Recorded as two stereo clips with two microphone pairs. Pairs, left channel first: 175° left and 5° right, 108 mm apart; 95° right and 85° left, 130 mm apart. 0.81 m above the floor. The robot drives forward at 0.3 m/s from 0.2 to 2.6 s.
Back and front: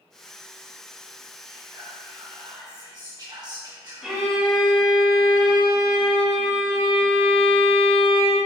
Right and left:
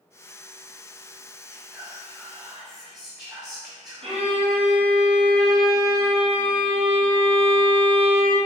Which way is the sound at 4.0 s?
80° left.